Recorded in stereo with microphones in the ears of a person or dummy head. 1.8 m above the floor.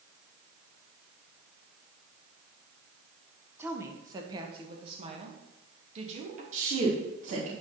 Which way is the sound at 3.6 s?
10° right (ahead or behind).